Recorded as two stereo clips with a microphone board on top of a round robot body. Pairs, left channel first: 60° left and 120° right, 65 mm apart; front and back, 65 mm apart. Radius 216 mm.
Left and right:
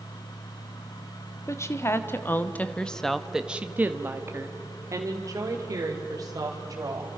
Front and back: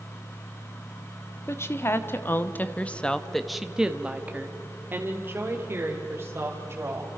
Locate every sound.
1.5 s a woman speaking: 35° left, 2 m; by 7.2 s 135° right, 4 m